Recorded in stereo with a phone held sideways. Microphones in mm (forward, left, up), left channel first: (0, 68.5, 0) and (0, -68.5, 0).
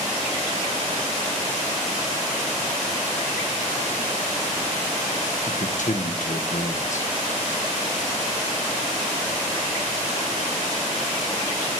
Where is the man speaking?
65° left (ahead or behind), 1.0 m.